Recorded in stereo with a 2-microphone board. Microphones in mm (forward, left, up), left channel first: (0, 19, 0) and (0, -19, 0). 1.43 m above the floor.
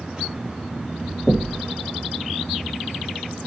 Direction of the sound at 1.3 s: 15° left (ahead or behind).